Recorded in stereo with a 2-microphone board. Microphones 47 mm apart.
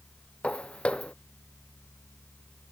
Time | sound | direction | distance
0.4 | footsteps | 25° left (ahead or behind) | ?